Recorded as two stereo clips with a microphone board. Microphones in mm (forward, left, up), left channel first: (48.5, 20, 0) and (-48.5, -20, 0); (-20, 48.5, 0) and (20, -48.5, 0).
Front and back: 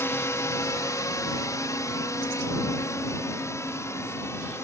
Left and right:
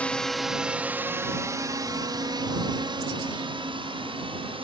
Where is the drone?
50° left; by 4.6 s 40° right.